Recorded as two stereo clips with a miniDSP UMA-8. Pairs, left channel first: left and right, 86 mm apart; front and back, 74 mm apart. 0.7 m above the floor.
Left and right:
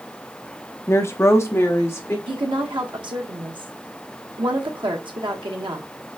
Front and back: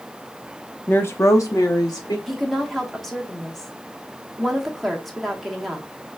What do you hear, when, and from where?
0.9 s a woman speaking: 50° left, 0.5 m; by 2.2 s 30° left, 1.5 m
2.3 s a woman speaking: 90° right, 1.0 m